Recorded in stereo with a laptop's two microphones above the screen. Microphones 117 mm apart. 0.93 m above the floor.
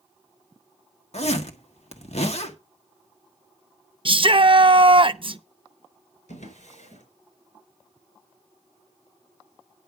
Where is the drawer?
85° left, 4.5 m.